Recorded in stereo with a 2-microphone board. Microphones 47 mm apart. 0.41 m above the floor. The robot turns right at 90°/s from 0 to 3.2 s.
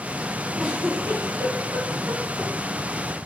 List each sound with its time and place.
0.6 s a giggle: 5° left (ahead or behind), 6.5 m; by 2.5 s 10° right (ahead or behind), 6.5 m